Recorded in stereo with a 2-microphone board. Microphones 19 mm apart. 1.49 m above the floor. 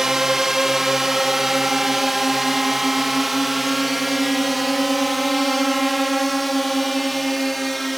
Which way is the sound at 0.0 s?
30° right (ahead or behind).